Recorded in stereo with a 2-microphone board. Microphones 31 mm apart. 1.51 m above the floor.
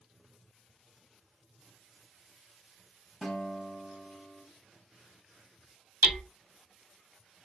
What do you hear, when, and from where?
3.2 s a guitar: 5° left (ahead or behind), 1.6 m
6.0 s hammering: 65° right (ahead or behind), 2 m